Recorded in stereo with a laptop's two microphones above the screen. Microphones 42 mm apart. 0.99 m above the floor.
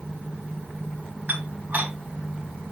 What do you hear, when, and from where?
1.3 s dishes clattering: 40° right (ahead or behind), 4.5 m